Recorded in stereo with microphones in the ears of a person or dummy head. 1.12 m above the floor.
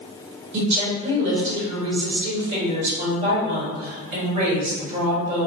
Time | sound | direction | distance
0.5 | a woman speaking | 40° right (ahead or behind) | 1.9 m